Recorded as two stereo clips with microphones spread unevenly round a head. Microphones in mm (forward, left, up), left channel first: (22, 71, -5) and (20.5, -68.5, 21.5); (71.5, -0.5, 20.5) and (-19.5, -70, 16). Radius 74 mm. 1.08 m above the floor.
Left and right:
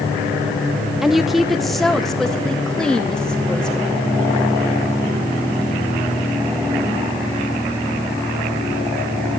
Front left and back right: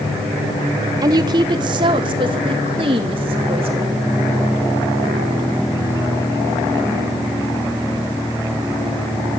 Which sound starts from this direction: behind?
A woman speaking, at 1.0 s.